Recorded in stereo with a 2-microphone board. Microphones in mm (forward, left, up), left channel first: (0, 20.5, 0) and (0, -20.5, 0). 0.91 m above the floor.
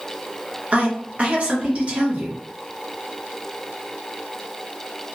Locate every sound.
0.7 s a woman speaking: 35° right (ahead or behind), 0.9 m